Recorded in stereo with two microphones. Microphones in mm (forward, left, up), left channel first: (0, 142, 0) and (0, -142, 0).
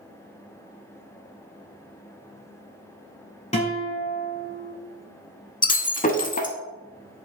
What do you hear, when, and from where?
3.5 s a guitar: 20° left (ahead or behind), 1.2 m
5.6 s breaking glass: 25° left (ahead or behind), 0.5 m